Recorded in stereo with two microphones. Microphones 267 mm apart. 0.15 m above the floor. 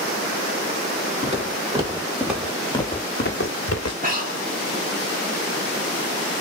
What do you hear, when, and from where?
1.2 s footsteps: 25° right (ahead or behind), 2 m; by 3.9 s 70° left (ahead or behind), 1.2 m
4.0 s breathing: 30° right (ahead or behind), 1.3 m